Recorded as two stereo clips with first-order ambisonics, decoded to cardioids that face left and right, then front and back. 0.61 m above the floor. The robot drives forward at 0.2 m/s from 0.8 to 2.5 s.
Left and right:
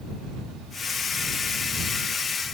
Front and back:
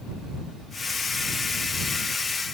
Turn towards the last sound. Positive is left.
No sound to turn to.